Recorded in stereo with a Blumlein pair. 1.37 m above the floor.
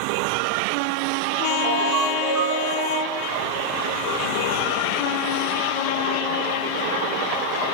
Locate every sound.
1.6 s a ringtone: 25° right, 1.5 m